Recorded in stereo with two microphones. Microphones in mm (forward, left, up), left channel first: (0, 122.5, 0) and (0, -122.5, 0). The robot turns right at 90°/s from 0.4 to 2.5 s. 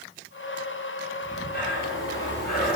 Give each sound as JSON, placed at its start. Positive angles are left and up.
{"t": 1.2, "sound": "breathing", "azimuth_deg": 20, "distance_m": 2.0}